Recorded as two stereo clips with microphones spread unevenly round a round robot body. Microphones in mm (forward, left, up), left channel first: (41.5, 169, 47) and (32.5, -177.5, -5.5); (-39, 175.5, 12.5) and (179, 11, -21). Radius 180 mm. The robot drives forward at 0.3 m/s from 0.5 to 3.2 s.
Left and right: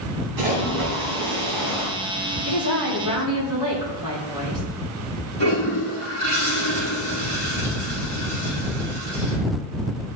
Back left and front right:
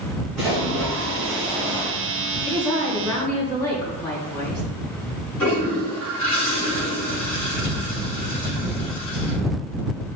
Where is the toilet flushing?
155° right, 4 m.